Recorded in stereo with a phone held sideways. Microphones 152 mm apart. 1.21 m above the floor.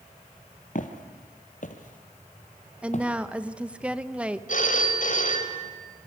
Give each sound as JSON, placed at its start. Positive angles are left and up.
{"t": 0.8, "sound": "footsteps", "side_deg": 60, "distance_m": 2.0}
{"t": 2.8, "sound": "a woman speaking", "side_deg": -10, "distance_m": 1.1}
{"t": 4.5, "sound": "a phone ringing", "side_deg": 60, "distance_m": 3.5}